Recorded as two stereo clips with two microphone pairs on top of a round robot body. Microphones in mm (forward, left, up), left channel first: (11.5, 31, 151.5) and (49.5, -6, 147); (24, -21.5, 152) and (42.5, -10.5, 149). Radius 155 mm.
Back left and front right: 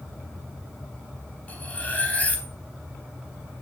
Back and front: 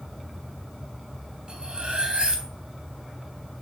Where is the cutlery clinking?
75° left, 3 m.